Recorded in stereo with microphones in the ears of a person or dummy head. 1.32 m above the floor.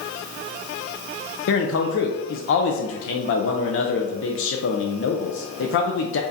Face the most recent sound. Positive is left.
turn(degrees=80)